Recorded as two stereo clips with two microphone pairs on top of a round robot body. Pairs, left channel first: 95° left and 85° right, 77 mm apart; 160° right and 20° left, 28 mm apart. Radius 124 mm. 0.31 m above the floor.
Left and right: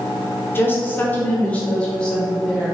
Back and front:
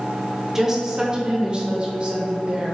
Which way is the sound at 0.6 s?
45° left.